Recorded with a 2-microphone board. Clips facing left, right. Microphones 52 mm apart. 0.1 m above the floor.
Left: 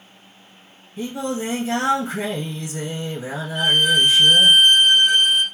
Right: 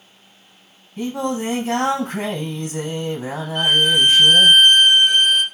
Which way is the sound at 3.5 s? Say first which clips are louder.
Right 1 dB; 50° right (ahead or behind).